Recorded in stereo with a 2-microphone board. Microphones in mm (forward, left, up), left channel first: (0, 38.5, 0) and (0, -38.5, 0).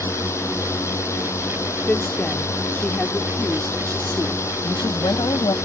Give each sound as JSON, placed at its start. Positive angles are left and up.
{"t": 0.0, "sound": "a drone", "side_deg": 40}
{"t": 1.9, "sound": "a woman speaking", "side_deg": 20}
{"t": 4.6, "sound": "a woman speaking", "side_deg": 75}